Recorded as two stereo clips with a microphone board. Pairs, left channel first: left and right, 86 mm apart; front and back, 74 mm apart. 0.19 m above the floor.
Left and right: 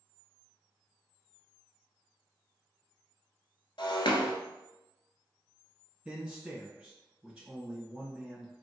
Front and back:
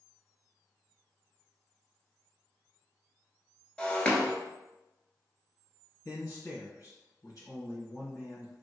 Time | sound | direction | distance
3.8 | breaking glass | 75° left | 0.7 m
6.0 | a man speaking | 20° right | 2.0 m